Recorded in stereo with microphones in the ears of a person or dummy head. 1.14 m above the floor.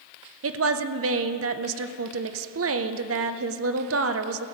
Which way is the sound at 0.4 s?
65° right (ahead or behind).